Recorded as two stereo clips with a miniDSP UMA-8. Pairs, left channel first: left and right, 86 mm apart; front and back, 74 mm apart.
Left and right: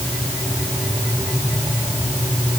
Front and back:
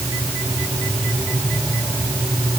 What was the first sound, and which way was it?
Only background noise.